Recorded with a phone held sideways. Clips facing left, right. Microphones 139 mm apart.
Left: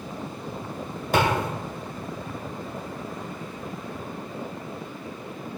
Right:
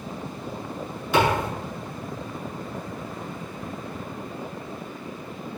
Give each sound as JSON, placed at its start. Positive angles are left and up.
{"t": 1.1, "sound": "a thud", "side_deg": 45, "distance_m": 2.0}